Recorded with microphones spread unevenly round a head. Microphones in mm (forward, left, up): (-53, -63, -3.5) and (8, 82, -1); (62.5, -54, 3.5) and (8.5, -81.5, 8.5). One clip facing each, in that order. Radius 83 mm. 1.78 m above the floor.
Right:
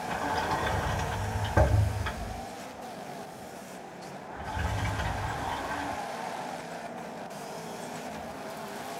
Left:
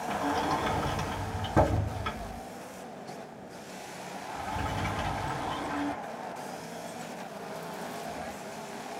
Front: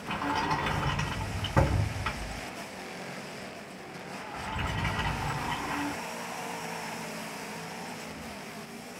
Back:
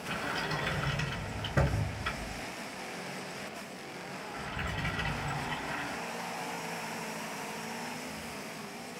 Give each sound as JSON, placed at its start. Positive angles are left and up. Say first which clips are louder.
{"t": 0.1, "sound": "a sliding door", "louder": "left 2 dB, front 5 dB", "azimuth_deg": 45, "distance_m": 2.0}